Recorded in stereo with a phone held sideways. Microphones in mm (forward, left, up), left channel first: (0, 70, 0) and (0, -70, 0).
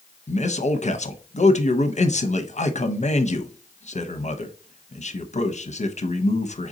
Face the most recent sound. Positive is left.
turn(degrees=55)  # may be behind; listen again after turning